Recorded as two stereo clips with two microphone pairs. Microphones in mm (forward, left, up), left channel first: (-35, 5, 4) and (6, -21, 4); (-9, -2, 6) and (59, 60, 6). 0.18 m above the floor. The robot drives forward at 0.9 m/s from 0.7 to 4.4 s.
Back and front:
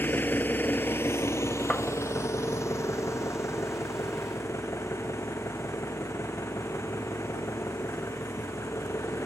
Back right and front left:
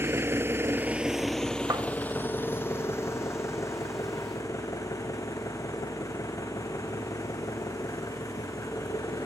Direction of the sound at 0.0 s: 105° left.